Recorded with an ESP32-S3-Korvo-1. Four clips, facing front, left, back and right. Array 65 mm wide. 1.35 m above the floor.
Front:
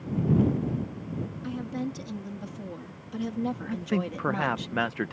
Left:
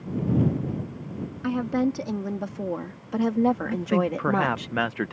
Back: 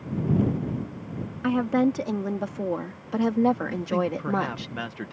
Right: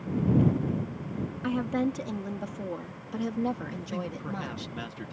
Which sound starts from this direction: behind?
A woman speaking, at 1.4 s.